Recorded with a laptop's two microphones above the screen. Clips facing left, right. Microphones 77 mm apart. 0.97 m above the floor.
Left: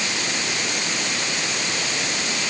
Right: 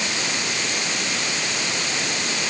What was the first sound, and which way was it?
Only background noise.